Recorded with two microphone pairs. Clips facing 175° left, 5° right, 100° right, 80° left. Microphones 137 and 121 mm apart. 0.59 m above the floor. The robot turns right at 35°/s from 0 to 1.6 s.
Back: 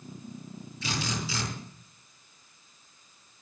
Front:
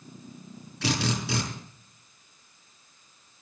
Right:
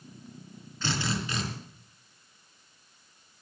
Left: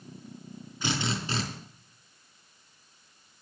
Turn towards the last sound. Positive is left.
turn(degrees=30)